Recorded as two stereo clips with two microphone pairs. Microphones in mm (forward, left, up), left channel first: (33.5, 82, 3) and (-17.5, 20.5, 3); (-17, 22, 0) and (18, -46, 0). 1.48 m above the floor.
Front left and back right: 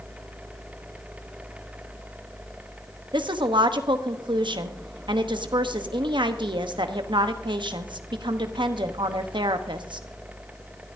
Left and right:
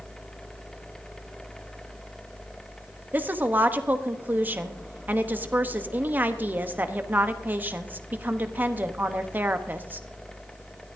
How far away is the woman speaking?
About 0.9 m.